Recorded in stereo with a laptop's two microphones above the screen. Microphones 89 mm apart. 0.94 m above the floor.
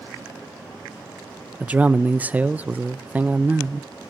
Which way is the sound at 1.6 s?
15° right (ahead or behind).